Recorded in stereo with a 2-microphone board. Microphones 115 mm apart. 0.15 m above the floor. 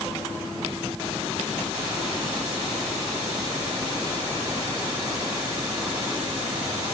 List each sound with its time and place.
Only background noise.